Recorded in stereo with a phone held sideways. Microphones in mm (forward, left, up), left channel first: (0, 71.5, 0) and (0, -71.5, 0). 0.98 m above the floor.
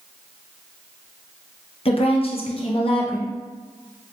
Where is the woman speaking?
40° left (ahead or behind), 0.5 m.